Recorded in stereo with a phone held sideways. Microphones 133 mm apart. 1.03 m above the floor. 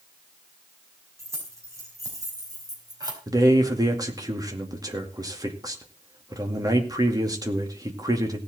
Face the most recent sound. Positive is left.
turn(degrees=-30)  # may be behind; listen again after turning